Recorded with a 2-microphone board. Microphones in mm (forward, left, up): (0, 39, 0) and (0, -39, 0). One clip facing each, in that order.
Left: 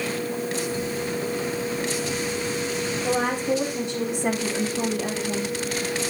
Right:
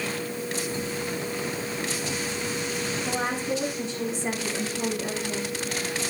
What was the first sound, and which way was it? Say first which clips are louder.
A woman speaking: left 6 dB; 60° left (ahead or behind).